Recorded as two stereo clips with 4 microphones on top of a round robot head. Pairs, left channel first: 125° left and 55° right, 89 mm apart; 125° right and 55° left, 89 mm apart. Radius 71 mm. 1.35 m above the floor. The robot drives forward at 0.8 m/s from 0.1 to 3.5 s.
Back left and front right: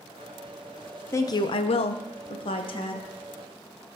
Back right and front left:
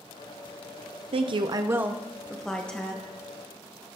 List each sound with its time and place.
1.1 s a woman speaking: 65° left, 0.6 m; by 3.1 s 160° left, 1.4 m